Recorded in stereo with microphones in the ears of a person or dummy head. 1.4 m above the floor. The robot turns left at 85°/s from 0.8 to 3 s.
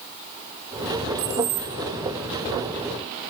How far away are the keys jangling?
About 4.5 m.